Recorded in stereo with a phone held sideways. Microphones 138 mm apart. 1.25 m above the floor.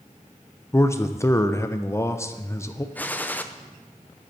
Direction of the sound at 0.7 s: 20° left (ahead or behind).